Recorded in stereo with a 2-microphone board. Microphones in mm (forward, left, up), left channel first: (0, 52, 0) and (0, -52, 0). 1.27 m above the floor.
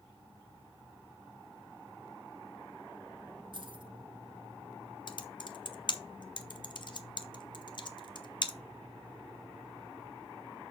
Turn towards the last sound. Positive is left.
turn(degrees=50)  # may be behind; listen again after turning